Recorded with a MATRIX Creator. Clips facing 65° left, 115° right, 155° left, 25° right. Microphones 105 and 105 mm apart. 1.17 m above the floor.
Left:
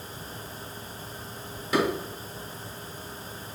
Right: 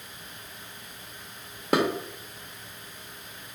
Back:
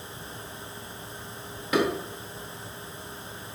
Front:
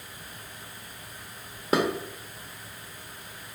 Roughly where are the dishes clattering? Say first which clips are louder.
Right 1 dB, even; right.